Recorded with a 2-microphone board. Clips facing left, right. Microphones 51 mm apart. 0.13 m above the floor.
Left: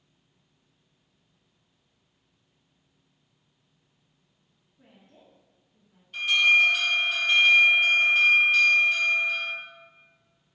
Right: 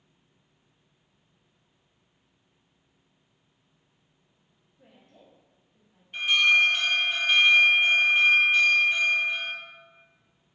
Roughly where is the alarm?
Right.